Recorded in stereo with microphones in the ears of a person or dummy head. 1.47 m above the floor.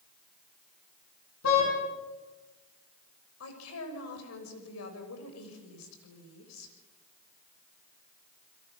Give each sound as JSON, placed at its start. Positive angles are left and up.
{"t": 1.4, "sound": "a car horn", "side_deg": 75, "distance_m": 8.5}
{"t": 3.4, "sound": "a woman speaking", "side_deg": 85, "distance_m": 6.0}